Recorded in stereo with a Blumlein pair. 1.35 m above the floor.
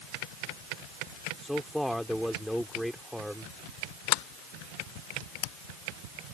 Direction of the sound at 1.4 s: Straight ahead.